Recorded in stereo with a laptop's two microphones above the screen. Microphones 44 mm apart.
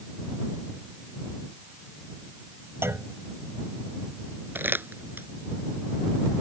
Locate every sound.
2.8 s a clunk: 75° right (ahead or behind)
4.5 s crumpling: 60° right (ahead or behind)